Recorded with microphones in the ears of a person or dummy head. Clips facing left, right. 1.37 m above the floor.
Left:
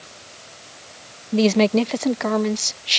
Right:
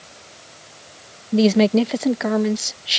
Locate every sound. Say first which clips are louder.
1.3 s a woman speaking: right 2 dB; 10° right (ahead or behind)